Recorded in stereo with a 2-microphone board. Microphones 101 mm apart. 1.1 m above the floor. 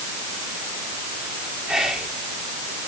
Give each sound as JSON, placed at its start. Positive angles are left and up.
{"t": 1.7, "sound": "whispering", "side_deg": -5, "distance_m": 2.5}